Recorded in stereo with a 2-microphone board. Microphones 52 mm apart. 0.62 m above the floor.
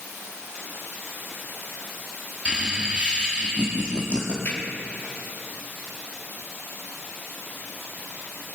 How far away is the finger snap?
About 6 m.